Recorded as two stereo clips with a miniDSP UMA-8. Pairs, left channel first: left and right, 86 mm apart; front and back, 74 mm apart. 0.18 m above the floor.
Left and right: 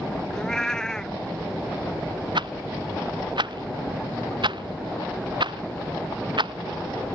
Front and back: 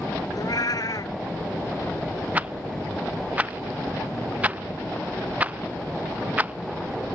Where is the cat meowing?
10° left.